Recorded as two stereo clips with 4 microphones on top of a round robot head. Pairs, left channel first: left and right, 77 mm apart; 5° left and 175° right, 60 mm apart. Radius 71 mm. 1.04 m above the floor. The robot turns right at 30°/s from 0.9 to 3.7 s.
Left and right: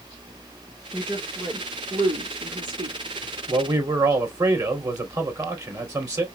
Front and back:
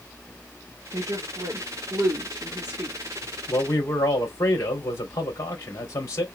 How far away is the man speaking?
About 3 m.